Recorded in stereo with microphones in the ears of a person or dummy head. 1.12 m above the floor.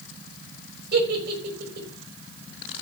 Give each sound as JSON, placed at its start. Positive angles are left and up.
{"t": 0.9, "sound": "a giggle", "side_deg": -60, "distance_m": 4.0}